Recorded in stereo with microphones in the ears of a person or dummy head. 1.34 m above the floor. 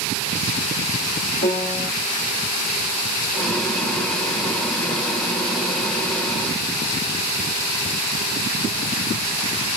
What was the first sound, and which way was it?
A piano, 40° left (ahead or behind).